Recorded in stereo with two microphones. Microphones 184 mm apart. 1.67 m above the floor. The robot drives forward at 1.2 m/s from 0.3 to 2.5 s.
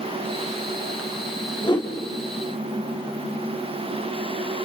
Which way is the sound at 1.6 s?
25° left (ahead or behind).